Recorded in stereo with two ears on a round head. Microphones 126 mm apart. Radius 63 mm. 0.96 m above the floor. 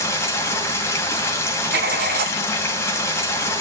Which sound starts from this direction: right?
Writing, at 1.7 s.